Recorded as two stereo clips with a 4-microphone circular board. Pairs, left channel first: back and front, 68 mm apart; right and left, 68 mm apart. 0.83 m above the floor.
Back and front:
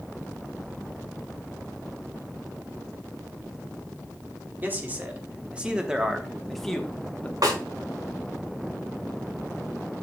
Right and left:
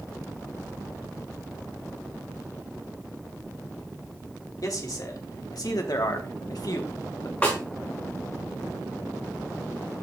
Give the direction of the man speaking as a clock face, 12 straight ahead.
2 o'clock.